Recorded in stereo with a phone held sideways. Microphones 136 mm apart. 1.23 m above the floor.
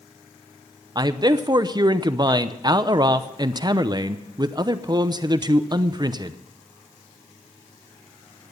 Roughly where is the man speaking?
Right.